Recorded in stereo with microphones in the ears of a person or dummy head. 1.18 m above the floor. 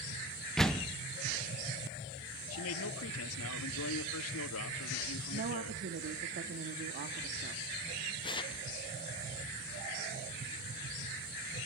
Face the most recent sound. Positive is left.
turn(degrees=20)  # may be behind; listen again after turning